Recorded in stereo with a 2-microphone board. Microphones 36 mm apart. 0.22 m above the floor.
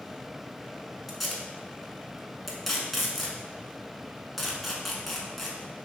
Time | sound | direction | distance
1.1 | tape being pulled | centre (ahead or behind) | 0.7 m